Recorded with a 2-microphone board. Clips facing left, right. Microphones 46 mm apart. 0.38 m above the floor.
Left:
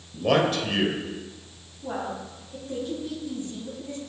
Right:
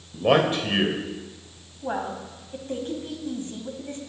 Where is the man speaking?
25° right (ahead or behind), 1.6 m.